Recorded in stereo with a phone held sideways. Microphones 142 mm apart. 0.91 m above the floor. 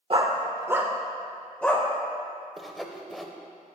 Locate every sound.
0.1 s a dog barking: 40° right (ahead or behind), 0.8 m; by 1.9 s 15° left (ahead or behind), 1.2 m
2.6 s sawing: centre (ahead or behind), 0.8 m